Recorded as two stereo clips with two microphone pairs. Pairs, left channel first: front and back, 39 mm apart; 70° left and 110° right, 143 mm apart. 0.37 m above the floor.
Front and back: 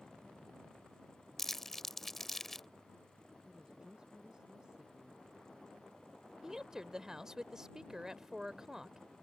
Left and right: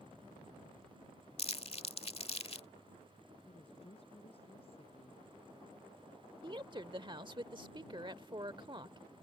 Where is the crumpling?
80° left.